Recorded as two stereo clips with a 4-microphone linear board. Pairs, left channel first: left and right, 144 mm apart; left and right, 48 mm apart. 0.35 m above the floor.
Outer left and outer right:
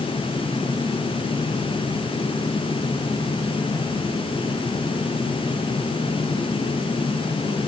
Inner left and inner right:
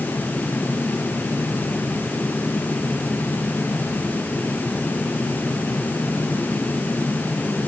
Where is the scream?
No scream in this recording.